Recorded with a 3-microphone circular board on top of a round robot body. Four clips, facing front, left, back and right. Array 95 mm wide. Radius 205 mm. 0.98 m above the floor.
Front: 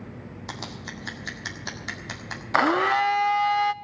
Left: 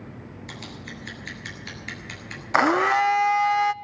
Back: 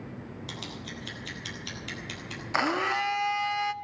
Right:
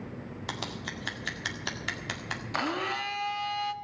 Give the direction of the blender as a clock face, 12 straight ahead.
10 o'clock.